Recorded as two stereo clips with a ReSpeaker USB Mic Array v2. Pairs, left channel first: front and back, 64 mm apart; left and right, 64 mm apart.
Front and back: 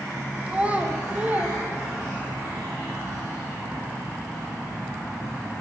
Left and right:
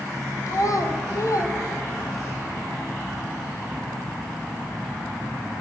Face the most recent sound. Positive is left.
turn(degrees=115)